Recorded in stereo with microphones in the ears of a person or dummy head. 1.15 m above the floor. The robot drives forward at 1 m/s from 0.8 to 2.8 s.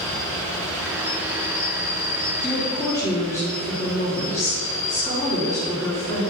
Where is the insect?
15° left (ahead or behind), 3 m; by 6.3 s 10° left (ahead or behind), 5 m.